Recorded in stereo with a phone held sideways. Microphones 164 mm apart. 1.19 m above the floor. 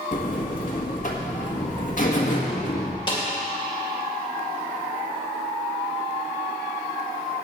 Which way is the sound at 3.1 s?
30° left (ahead or behind).